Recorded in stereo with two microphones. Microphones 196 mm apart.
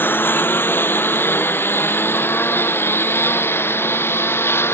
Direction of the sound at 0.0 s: 10° left (ahead or behind).